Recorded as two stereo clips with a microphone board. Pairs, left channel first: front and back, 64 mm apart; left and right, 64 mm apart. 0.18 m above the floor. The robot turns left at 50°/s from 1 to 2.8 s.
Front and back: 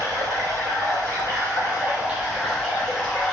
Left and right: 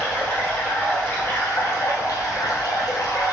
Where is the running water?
160° left, 2 m; by 3.3 s 70° left, 2 m.